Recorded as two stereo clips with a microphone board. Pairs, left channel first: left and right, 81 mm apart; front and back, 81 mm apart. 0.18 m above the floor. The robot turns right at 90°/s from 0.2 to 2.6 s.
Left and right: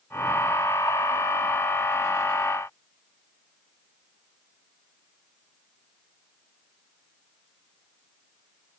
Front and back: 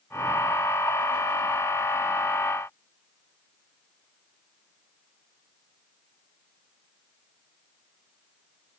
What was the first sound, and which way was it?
Only background noise.